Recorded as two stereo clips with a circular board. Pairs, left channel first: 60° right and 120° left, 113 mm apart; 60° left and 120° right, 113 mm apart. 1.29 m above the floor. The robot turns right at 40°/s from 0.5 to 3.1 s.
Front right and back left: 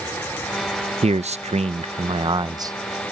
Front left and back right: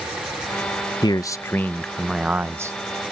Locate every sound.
1.0 s a man speaking: 110° left; by 2.8 s straight behind